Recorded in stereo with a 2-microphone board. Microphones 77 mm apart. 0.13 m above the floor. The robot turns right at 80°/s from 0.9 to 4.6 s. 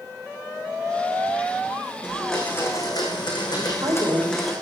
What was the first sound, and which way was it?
A blender, 15° right.